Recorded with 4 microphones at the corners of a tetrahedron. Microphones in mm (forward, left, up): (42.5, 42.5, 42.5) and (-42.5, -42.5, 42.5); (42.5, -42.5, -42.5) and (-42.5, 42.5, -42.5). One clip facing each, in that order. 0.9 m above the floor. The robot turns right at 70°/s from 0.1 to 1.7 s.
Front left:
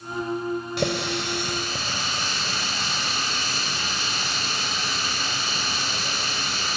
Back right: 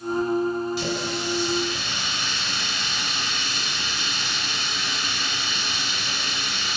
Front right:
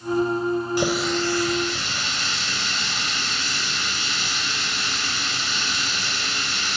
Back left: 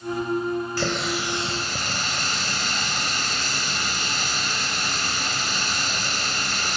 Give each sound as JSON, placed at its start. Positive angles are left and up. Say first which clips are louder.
{"t": 0.8, "sound": "a running tap", "louder": "front left 1 dB, front right 4 dB", "azimuth_deg": 25, "distance_m": 3.0}